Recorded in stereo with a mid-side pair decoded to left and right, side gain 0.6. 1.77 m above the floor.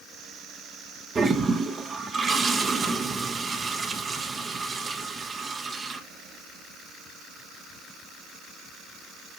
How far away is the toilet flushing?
About 1.3 m.